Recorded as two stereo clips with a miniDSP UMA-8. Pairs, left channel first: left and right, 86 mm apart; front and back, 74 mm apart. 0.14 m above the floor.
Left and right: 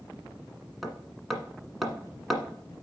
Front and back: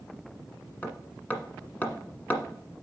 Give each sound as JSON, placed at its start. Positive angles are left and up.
{"t": 0.8, "sound": "hammering", "azimuth_deg": 0, "distance_m": 1.5}